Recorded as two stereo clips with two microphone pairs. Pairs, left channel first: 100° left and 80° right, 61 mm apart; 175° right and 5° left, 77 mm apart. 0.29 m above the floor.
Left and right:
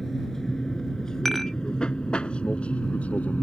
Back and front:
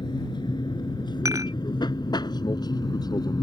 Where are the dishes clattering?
15° left.